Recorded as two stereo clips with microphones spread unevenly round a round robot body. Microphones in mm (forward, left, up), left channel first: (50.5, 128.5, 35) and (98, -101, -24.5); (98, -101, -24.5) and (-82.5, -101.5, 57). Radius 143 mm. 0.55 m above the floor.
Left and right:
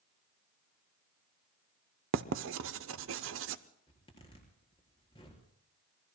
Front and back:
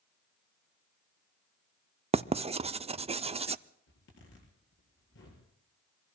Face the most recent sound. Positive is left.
turn(degrees=30)